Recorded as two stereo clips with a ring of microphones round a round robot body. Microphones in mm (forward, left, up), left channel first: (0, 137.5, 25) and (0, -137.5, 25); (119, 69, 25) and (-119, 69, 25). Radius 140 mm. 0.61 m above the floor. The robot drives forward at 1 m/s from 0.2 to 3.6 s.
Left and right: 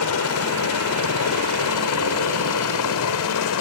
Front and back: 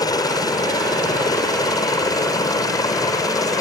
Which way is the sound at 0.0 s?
70° left.